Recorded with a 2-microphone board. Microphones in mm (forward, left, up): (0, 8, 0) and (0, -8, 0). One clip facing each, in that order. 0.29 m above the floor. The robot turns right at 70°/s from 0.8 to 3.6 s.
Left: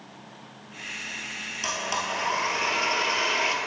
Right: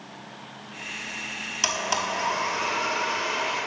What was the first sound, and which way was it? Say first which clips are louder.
A blender: right 3 dB; 40° right.